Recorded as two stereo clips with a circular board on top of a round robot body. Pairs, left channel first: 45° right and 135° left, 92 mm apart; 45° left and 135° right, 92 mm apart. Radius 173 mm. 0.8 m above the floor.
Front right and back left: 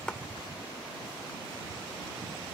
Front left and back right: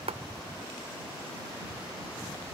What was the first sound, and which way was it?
A clap, 125° right.